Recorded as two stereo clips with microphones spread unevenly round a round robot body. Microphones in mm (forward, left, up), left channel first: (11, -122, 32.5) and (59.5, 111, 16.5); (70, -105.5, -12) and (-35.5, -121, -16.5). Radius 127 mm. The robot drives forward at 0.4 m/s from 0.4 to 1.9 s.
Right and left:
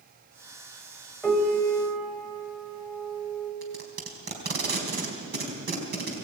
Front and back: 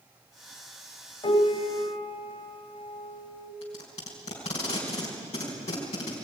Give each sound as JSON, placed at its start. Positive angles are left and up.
{"t": 1.2, "sound": "a piano", "azimuth_deg": -10, "distance_m": 3.5}
{"t": 3.6, "sound": "tape being pulled", "azimuth_deg": 35, "distance_m": 4.0}